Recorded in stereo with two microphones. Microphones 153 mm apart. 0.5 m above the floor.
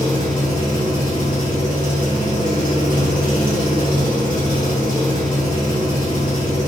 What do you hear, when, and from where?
0.0 s an engine running: 75° left (ahead or behind), 1.6 m